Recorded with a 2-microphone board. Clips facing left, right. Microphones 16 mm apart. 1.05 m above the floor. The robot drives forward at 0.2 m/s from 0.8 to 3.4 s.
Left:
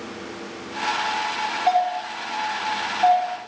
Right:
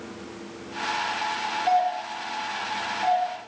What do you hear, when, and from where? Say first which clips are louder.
1.7 s a doorbell: left 2 dB; 45° left (ahead or behind), 0.8 m; by 3.5 s 35° left (ahead or behind), 1.0 m